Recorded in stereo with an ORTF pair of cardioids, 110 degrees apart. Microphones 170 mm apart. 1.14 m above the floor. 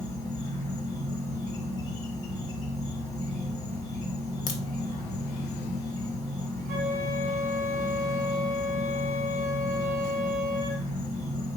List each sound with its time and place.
0.0 s an insect: 20° left, 1.1 m
4.5 s a crack: 45° left, 0.9 m
6.7 s a flute: 60° right, 1.0 m